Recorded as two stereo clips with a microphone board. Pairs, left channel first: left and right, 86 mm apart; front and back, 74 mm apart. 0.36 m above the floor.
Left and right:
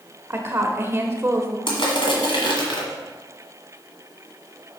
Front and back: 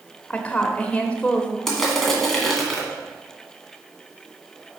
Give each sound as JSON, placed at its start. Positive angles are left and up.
{"t": 0.3, "sound": "a woman speaking", "azimuth_deg": -60, "distance_m": 0.9}
{"t": 1.7, "sound": "crushing", "azimuth_deg": 85, "distance_m": 1.7}